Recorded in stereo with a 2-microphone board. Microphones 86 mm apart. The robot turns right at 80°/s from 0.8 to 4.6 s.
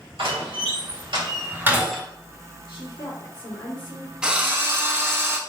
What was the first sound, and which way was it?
A door slam, 80° right.